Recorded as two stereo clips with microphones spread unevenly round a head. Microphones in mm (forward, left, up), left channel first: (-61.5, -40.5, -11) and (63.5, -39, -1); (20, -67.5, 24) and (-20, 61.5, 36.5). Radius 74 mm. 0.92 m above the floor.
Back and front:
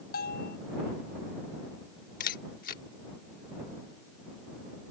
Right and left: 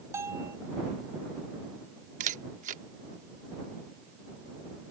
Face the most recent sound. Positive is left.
turn(degrees=145)